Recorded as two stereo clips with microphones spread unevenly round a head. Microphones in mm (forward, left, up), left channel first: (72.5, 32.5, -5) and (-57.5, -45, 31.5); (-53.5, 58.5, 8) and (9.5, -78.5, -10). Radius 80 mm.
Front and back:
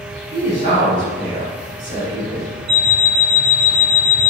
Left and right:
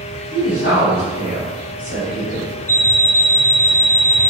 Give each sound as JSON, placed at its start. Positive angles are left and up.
{"t": 0.3, "sound": "a woman speaking", "azimuth_deg": -80, "distance_m": 1.6}
{"t": 2.7, "sound": "an alarm clock", "azimuth_deg": 180, "distance_m": 0.7}